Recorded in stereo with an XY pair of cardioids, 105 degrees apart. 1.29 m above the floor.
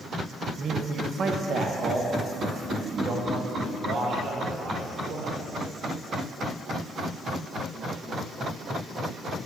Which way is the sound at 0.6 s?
50° right.